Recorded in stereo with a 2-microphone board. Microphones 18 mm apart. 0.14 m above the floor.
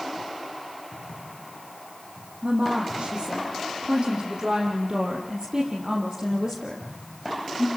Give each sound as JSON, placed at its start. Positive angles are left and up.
{"t": 2.4, "sound": "a woman speaking", "side_deg": -65, "distance_m": 8.0}